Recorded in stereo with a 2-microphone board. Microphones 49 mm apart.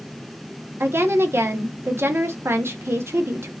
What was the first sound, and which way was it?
A woman speaking, 60° right (ahead or behind).